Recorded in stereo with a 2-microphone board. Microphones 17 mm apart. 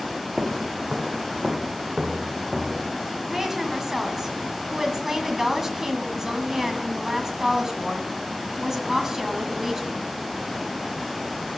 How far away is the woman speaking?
About 1.8 m.